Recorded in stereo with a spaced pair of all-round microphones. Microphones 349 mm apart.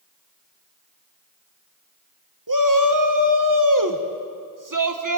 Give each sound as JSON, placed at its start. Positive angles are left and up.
{"t": 2.5, "sound": "a shout", "side_deg": -65, "distance_m": 1.6}